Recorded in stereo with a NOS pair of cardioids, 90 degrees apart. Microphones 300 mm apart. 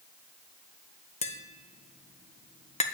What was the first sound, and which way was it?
Tapping, 20° left.